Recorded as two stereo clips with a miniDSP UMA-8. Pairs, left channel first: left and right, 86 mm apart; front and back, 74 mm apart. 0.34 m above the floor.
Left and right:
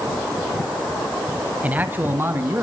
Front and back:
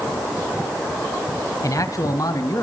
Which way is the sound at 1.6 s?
20° right.